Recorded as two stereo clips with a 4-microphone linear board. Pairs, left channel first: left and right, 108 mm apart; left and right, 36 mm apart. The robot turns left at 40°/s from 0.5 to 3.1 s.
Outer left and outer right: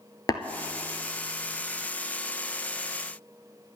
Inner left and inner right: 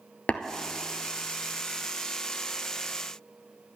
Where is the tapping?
40° left (ahead or behind), 0.7 m.